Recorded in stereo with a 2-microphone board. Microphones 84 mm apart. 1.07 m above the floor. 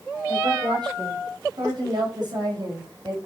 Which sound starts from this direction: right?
A woman speaking, at 0.3 s.